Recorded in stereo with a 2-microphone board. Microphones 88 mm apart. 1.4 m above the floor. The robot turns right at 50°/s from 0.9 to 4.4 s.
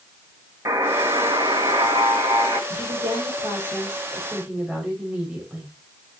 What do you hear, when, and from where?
0.7 s a buzzer: 145° right, 4 m; by 2.6 s 60° right, 4 m
2.7 s a woman speaking: 105° right, 7 m; by 5.7 s 20° right, 7 m